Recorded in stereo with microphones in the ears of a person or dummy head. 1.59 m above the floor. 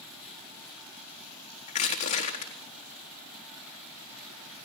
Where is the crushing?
40° left (ahead or behind), 3.5 m.